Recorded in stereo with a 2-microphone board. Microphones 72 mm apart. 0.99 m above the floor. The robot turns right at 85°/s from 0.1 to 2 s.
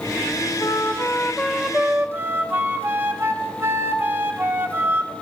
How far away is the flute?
About 0.8 m.